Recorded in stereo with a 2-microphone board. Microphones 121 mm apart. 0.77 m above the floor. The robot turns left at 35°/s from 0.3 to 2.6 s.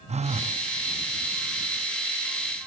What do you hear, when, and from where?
0.1 s a phone buzzing: 65° right (ahead or behind); by 0.6 s 70° right (ahead or behind)